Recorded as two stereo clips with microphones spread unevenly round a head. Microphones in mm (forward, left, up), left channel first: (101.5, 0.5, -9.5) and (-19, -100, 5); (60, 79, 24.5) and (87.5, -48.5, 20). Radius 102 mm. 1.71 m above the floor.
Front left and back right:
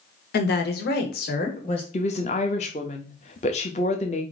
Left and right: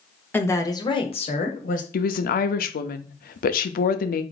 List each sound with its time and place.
0.3 s a woman speaking: 30° left, 1.4 m; by 1.8 s 105° left, 1.3 m
1.9 s a woman speaking: 100° left, 0.6 m